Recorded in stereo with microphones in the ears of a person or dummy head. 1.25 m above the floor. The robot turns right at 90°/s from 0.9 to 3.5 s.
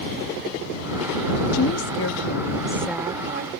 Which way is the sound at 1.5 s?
60° left.